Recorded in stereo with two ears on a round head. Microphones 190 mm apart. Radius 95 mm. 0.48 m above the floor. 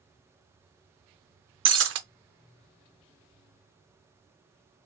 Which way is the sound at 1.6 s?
60° right (ahead or behind).